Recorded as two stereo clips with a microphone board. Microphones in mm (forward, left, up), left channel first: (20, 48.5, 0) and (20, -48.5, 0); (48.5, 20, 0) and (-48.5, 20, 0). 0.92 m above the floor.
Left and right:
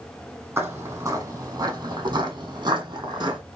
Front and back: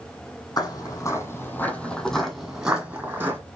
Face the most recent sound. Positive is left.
turn(degrees=-120)